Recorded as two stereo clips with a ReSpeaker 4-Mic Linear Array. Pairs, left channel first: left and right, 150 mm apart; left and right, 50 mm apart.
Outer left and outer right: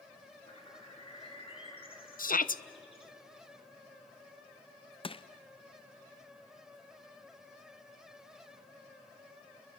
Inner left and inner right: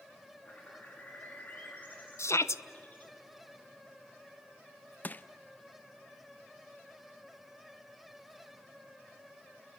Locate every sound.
0.5 s a bird: 35° left (ahead or behind), 3 m
2.2 s a shout: 65° left (ahead or behind), 0.8 m
5.0 s crushing: 35° left (ahead or behind), 0.6 m